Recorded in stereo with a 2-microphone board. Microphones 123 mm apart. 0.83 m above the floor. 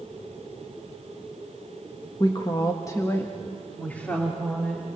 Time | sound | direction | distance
2.2 | a woman speaking | 40° left (ahead or behind) | 1.2 m